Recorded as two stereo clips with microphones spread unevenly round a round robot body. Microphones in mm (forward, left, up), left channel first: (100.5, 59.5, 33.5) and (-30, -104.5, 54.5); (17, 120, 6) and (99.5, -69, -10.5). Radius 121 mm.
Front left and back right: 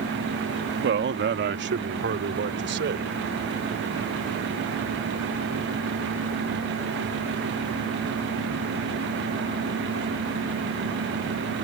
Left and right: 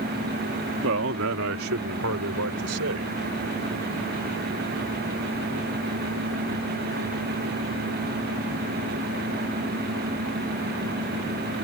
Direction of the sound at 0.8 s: 95° right.